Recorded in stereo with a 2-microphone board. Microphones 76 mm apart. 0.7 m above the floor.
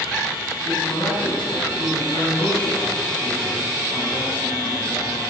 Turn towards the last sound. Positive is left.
turn(degrees=80)